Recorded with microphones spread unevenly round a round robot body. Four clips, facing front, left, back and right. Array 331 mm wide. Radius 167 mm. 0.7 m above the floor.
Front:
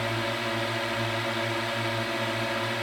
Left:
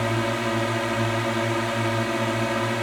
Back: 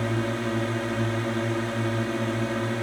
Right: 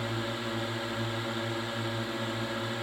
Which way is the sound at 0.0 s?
135° left.